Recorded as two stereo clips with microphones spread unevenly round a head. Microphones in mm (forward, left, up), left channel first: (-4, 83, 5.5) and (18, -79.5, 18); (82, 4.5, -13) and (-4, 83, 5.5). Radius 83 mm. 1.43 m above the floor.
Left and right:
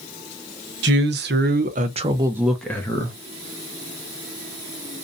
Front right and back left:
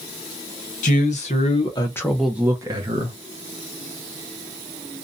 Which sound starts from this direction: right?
A man speaking, at 0.8 s.